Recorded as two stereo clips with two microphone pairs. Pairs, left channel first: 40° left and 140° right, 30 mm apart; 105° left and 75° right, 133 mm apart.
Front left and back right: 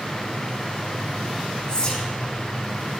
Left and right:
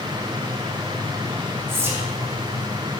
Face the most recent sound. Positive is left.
turn(degrees=-10)